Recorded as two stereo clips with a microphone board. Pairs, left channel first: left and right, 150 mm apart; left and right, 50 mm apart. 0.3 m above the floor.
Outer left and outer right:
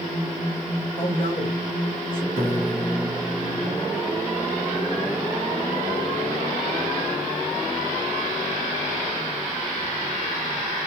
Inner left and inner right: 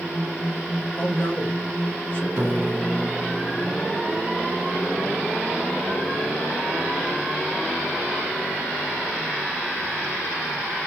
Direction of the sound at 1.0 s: 40° left (ahead or behind).